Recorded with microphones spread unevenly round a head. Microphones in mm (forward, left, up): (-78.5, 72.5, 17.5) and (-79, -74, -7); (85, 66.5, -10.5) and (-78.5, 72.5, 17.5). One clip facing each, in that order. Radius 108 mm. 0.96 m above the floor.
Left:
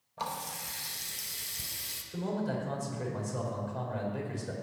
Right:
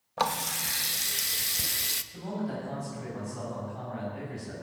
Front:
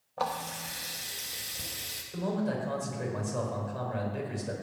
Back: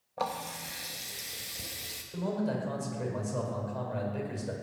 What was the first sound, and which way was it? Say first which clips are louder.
A running tap: right 8 dB, front 1 dB; 100° right.